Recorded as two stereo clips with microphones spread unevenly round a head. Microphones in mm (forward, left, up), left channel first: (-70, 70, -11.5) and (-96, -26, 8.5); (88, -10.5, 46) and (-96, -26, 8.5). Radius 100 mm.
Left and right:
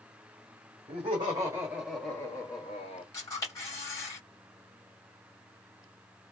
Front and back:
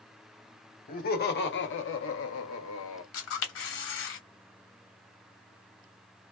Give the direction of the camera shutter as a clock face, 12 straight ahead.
12 o'clock.